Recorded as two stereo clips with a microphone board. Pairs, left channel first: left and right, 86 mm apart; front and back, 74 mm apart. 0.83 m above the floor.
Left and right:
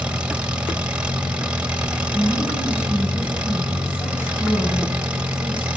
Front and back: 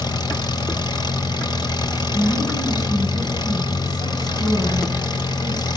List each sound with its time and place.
0.0 s an engine running: 15° right, 2.5 m
2.1 s a woman speaking: 25° left, 6 m